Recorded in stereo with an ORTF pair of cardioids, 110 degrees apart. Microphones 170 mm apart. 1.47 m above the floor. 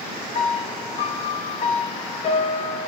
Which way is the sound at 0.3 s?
40° left.